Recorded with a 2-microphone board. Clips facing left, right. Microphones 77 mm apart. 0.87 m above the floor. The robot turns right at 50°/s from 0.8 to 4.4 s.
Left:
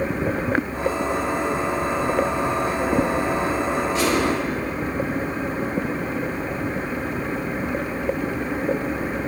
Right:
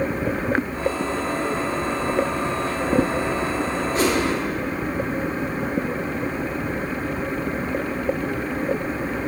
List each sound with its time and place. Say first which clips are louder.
4.0 s a whoosh: right 2 dB; 40° right (ahead or behind), 1.3 m; by 4.2 s 50° right (ahead or behind), 1.3 m